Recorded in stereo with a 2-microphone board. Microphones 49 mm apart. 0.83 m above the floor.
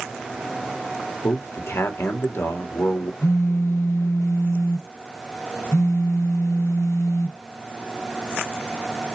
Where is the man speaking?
60° left (ahead or behind), 1.5 m.